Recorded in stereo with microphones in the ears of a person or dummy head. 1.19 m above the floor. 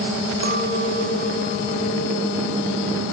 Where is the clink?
65° right (ahead or behind), 2.0 m.